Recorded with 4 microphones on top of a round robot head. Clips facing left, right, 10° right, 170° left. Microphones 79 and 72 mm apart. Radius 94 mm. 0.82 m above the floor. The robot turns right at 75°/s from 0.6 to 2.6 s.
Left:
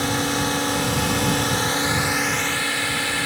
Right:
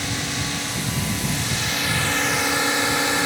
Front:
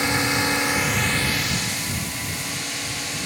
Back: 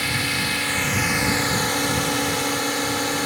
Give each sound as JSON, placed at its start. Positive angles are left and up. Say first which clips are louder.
{"t": 0.0, "sound": "a drone", "louder": "left 6 dB, front 3 dB", "azimuth_deg": 55}